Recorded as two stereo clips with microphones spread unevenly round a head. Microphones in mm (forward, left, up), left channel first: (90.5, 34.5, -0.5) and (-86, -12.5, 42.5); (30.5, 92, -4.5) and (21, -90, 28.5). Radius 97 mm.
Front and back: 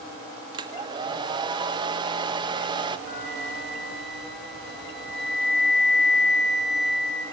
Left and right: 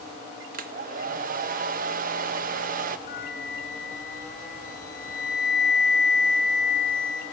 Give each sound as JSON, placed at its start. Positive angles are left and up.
{"t": 0.5, "sound": "a hair dryer", "azimuth_deg": -95, "distance_m": 0.5}
{"t": 3.1, "sound": "a flute", "azimuth_deg": 45, "distance_m": 4.0}